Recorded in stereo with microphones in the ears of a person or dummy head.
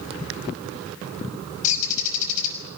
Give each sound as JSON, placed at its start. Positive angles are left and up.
{"t": 1.6, "sound": "a bird", "side_deg": 40, "distance_m": 5.5}